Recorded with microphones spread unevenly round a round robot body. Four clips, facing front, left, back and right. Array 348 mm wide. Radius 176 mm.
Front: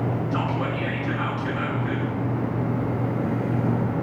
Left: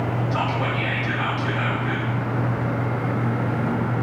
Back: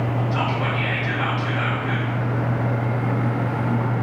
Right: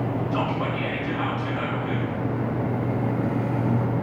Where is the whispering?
40° left, 1.2 m.